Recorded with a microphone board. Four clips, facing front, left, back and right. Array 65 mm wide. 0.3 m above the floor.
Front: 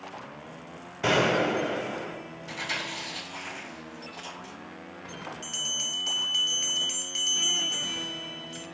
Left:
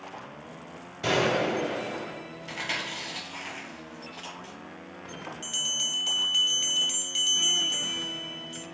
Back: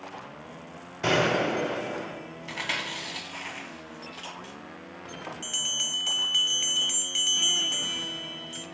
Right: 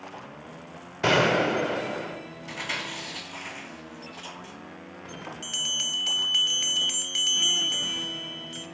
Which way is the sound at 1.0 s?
85° right.